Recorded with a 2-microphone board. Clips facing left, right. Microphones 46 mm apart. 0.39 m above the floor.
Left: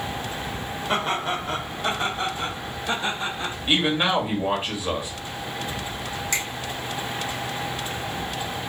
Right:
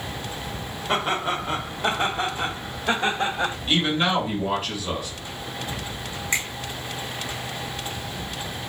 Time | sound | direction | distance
0.9 | laughter | 5° right (ahead or behind) | 1.2 m
3.7 | a man speaking | 25° left (ahead or behind) | 1.5 m
6.3 | a finger snap | 25° right (ahead or behind) | 2 m